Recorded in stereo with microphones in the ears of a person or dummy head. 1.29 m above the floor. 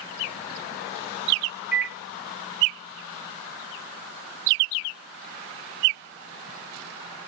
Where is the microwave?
5° right (ahead or behind), 0.6 m.